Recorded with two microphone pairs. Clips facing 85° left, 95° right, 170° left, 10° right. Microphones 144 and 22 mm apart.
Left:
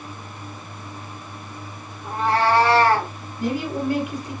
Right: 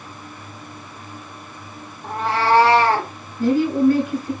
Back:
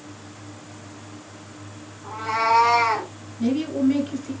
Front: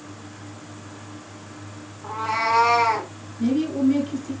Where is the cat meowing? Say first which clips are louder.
Even, back 1 dB; 65° right, 1.2 m; by 3.1 s 110° right, 1.5 m.